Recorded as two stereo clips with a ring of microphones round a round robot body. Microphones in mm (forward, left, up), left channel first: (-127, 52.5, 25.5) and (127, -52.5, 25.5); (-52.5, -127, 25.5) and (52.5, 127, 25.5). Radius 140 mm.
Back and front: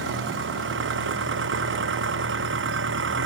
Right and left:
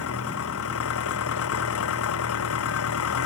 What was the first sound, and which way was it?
An engine running, 70° right.